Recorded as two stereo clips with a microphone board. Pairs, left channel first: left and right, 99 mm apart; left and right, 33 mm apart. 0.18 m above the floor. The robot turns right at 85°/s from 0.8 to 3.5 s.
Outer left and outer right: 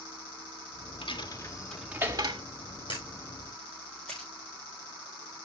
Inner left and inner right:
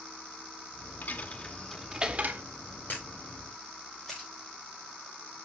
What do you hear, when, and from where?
1.0 s a dropped coin: 65° left (ahead or behind), 1.7 m; by 2.4 s 55° right (ahead or behind), 1.7 m
2.9 s a camera shutter: 60° left (ahead or behind), 7 m; by 4.3 s 10° left (ahead or behind), 7 m